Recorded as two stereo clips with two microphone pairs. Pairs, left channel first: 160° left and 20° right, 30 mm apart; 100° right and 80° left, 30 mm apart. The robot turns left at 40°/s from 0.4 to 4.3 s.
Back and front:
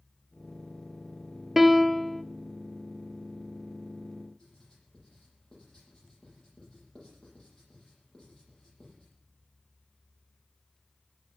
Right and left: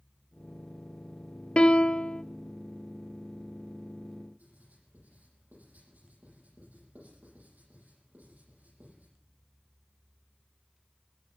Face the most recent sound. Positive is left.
turn(degrees=95)